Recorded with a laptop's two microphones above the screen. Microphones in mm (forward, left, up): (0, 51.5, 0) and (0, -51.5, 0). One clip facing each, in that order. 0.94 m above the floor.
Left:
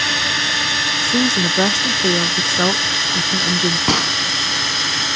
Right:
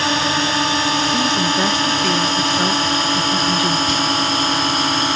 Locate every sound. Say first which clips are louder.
0.0 s a drone: right 5 dB; 35° right (ahead or behind); by 5.2 s 40° right (ahead or behind)
1.0 s a woman speaking: right 1 dB; 30° left (ahead or behind)
3.9 s a gunshot: even; 70° left (ahead or behind)